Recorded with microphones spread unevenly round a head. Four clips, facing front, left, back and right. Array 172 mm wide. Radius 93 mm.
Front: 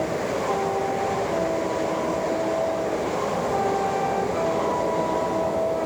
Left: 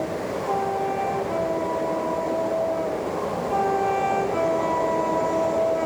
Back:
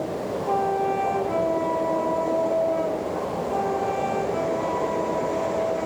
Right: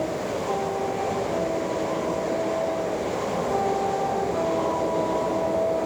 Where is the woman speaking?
No woman speaking in this recording.